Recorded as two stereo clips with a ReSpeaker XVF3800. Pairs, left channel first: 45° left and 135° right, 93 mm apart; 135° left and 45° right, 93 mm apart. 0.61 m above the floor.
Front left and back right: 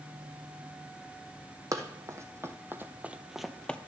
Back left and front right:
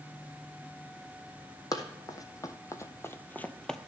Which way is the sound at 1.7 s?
175° left.